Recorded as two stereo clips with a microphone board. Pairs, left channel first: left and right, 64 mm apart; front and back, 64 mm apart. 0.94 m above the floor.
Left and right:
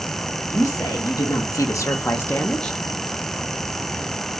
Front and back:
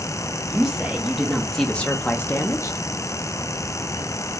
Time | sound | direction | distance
0.5 | a woman speaking | 105° left | 1.1 m